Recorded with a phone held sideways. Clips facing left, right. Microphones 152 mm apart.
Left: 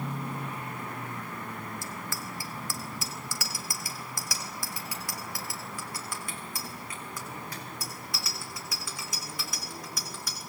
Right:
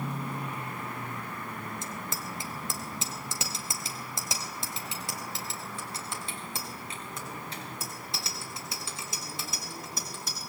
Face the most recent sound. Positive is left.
turn(degrees=-25)  # may be behind; listen again after turning